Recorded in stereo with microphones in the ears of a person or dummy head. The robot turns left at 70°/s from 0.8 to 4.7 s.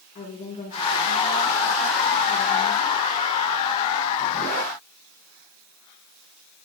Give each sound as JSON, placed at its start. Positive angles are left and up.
{"t": 0.1, "sound": "a woman speaking", "azimuth_deg": 150, "distance_m": 4.0}